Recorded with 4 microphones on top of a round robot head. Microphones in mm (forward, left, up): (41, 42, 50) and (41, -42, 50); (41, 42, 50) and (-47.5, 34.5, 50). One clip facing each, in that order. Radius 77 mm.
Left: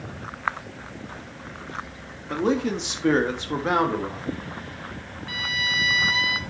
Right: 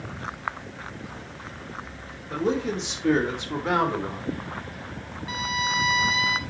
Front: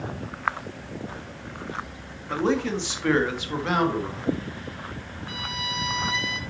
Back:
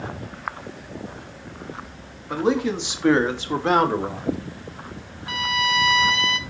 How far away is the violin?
About 0.8 m.